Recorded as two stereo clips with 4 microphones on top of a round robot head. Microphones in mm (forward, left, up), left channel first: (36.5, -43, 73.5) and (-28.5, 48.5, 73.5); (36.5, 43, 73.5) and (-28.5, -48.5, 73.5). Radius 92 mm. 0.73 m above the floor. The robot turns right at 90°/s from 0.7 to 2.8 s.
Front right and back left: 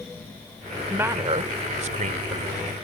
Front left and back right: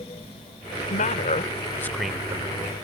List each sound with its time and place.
0.9 s a man speaking: 45° left; by 2.7 s 150° right